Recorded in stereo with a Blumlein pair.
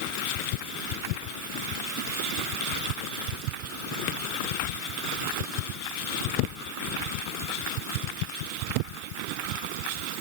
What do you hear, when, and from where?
Only background noise.